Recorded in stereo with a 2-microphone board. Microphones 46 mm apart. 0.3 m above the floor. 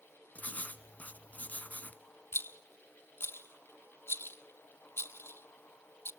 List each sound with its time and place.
0.3 s writing: 35° left (ahead or behind), 0.9 m
2.3 s a rattle: 65° left (ahead or behind), 0.7 m